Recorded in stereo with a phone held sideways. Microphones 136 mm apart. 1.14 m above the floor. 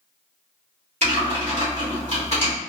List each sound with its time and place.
1.0 s typing on a keyboard: 55° right (ahead or behind), 1.8 m